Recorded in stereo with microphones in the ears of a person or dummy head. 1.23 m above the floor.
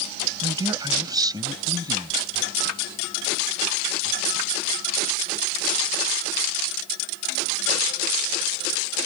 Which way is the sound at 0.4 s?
25° right (ahead or behind).